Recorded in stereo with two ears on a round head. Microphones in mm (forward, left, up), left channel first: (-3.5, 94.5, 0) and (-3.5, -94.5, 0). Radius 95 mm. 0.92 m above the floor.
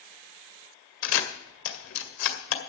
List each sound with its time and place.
1.0 s a camera shutter: 75° left (ahead or behind), 2 m